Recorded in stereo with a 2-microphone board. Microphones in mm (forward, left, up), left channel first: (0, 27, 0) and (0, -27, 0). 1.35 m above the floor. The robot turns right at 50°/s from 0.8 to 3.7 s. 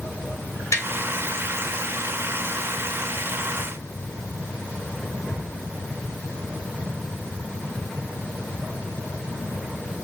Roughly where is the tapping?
Left.